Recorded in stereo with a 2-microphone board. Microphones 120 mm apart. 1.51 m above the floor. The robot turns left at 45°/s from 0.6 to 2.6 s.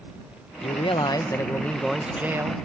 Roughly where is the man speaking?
Ahead left.